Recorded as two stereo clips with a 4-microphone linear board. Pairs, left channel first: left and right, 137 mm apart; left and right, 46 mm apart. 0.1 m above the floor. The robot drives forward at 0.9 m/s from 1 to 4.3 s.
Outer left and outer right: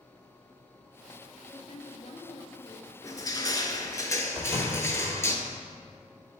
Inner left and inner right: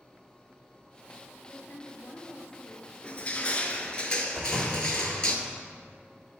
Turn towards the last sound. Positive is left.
turn(degrees=-5)  # may be behind; listen again after turning